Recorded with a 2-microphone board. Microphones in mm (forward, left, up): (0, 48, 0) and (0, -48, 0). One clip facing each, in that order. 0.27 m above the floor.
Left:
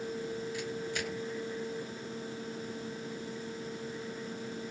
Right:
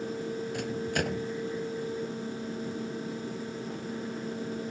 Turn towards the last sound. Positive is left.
turn(degrees=-55)  # may be behind; listen again after turning